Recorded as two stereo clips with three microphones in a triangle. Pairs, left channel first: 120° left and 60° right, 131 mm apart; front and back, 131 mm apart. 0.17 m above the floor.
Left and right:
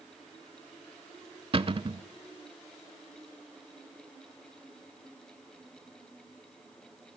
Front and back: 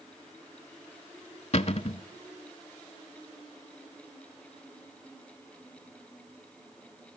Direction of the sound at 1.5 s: 20° right.